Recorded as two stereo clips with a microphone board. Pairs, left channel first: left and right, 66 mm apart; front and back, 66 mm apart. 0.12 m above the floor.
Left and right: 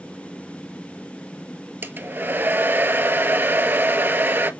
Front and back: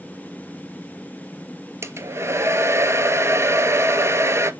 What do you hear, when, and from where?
1.8 s a hair dryer: 140° right, 0.8 m